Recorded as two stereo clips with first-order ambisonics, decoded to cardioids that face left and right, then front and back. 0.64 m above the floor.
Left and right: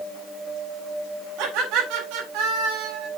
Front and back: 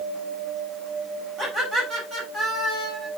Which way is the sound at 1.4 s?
115° right.